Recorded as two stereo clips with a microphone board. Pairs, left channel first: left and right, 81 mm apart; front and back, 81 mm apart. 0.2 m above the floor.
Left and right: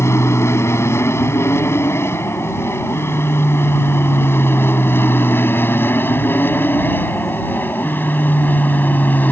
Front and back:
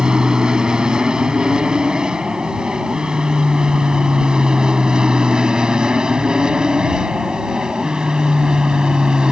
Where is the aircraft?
105° left; by 9.3 s 115° left.